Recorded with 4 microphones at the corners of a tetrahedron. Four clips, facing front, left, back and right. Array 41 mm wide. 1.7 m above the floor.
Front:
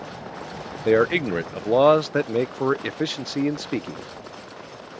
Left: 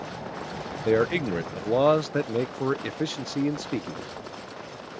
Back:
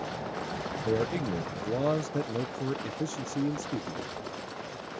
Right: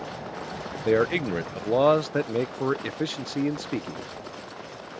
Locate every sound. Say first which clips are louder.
0.8 s a man speaking: even, front 11 dB; straight ahead